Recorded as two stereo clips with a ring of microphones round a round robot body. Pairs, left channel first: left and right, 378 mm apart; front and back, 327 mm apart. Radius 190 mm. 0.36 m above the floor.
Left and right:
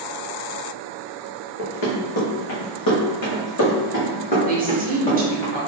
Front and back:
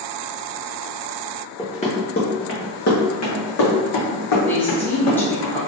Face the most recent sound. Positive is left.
turn(degrees=-75)